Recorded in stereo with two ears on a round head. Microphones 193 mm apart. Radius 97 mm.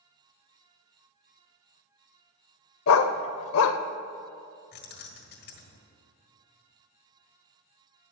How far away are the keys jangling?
About 1.6 m.